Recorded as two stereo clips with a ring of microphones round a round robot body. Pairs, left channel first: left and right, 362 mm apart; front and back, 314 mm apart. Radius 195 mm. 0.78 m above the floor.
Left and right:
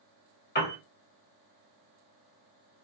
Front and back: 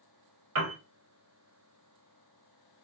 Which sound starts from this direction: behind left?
A piano, at 0.6 s.